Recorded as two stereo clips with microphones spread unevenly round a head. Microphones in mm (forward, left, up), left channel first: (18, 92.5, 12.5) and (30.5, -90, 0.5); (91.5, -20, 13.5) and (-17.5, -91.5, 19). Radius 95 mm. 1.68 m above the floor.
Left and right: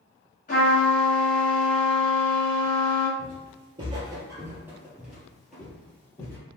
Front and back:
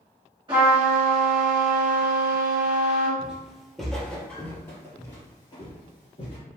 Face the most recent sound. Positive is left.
turn(degrees=30)